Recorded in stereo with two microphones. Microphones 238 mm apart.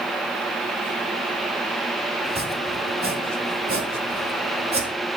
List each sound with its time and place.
2.2 s chopping: 45° right (ahead or behind), 0.9 m